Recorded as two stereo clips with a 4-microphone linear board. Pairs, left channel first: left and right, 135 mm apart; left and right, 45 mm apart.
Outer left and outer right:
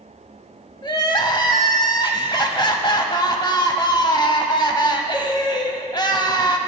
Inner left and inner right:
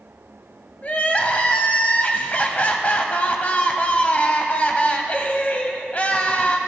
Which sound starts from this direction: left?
Crying, at 0.8 s.